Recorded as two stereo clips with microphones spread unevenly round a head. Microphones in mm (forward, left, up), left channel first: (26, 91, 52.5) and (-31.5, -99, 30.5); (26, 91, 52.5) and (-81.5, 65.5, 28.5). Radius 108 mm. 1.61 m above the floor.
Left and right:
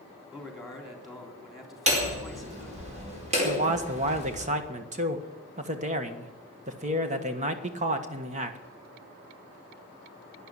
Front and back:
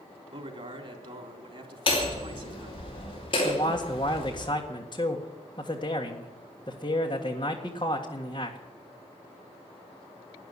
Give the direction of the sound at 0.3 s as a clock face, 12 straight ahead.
7 o'clock.